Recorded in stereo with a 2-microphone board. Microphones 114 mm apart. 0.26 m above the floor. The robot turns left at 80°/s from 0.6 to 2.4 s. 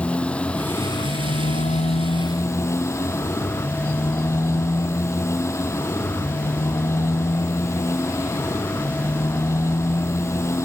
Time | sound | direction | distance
0.0 | a motorcycle | 170° left | ?